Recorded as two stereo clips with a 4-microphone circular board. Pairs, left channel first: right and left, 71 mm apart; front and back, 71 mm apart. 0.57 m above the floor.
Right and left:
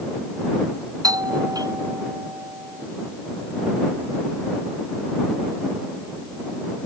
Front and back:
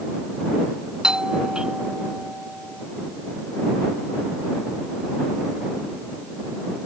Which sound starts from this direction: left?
A doorbell, at 1.0 s.